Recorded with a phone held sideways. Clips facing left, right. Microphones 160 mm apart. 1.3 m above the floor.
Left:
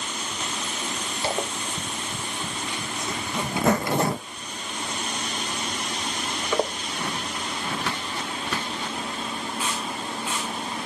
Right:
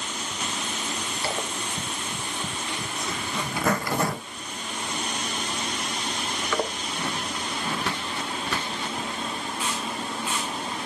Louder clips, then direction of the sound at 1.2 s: Left 4 dB; 25° left (ahead or behind).